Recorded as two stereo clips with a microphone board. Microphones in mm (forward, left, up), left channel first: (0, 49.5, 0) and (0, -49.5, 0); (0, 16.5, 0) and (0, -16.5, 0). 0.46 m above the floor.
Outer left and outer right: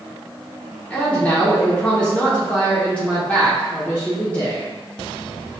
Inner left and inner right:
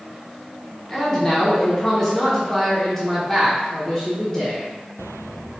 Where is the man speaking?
15° left (ahead or behind), 0.7 m.